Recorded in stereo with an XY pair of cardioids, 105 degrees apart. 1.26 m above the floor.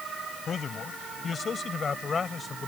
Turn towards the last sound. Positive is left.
turn(degrees=35)